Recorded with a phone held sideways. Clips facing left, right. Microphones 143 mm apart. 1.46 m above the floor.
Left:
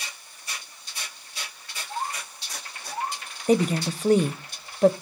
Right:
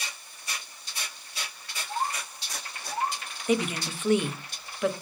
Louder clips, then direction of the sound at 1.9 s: Right 1 dB; 20° right (ahead or behind).